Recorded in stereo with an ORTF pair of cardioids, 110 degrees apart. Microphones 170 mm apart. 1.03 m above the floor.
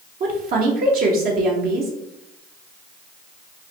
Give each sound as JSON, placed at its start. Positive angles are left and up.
{"t": 0.2, "sound": "a woman speaking", "azimuth_deg": -60, "distance_m": 0.9}